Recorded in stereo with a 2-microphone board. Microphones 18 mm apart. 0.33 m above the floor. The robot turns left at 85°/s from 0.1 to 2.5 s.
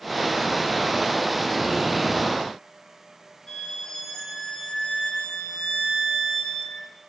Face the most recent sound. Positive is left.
turn(degrees=50)  # may be behind; listen again after turning